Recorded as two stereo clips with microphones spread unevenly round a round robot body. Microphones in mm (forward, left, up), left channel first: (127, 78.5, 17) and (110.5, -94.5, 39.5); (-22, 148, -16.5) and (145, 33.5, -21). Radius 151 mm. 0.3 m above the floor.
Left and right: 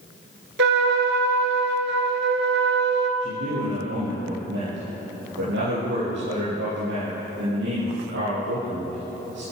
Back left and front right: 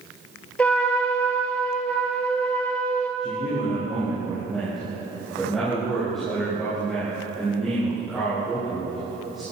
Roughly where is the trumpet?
Behind right.